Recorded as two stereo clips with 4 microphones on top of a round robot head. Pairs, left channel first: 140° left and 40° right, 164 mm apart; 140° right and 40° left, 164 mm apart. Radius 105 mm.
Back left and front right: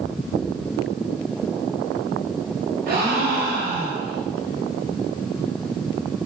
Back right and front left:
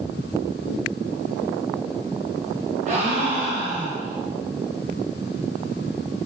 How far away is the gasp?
About 0.9 m.